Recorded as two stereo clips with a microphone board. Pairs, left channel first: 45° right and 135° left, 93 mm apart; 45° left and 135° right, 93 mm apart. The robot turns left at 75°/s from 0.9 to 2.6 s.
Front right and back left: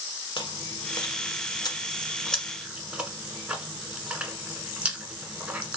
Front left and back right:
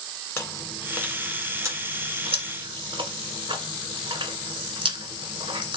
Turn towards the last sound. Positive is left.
turn(degrees=-150)